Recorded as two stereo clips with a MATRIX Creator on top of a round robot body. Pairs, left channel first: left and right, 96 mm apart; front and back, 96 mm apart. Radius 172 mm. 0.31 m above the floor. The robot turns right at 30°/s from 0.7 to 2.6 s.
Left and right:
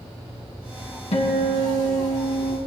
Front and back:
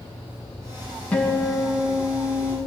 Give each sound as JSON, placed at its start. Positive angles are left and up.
{"t": 1.1, "sound": "a guitar", "azimuth_deg": 80, "distance_m": 2.0}